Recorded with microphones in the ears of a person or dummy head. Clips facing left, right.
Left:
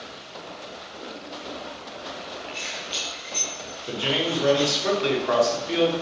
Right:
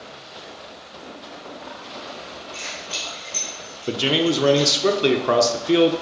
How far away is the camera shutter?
I don't hear a camera shutter.